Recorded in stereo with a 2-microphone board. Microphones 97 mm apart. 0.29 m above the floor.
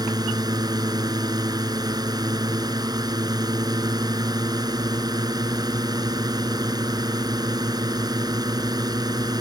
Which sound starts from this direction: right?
A drone, at 0.0 s.